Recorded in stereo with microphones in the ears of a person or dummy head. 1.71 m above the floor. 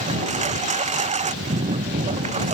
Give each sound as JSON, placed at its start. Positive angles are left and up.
{"t": 0.0, "sound": "a lawn mower", "side_deg": -35}